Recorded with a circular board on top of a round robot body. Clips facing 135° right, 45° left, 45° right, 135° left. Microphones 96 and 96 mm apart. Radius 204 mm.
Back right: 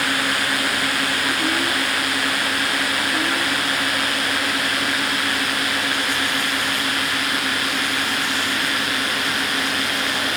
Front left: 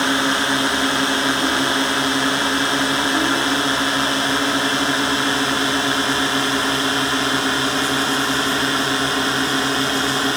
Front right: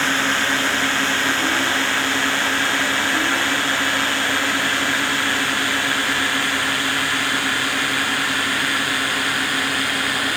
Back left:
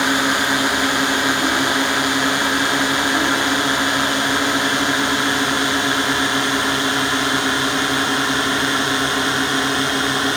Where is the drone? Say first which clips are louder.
Front left 4 dB, back left 3 dB; 75° left; by 10.4 s 85° left.